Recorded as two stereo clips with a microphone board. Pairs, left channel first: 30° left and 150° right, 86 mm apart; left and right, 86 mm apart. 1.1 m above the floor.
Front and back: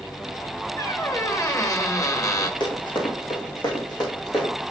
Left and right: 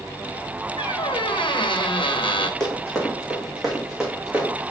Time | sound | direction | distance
0.8 | a squeak | 85° left | 0.8 m
2.6 | running footsteps | 10° left | 3 m